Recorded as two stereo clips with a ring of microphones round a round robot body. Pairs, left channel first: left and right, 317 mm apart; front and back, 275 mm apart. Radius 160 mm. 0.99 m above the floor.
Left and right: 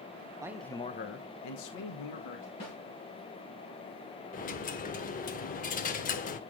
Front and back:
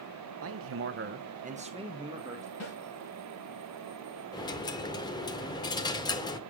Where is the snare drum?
30° left, 6.5 m.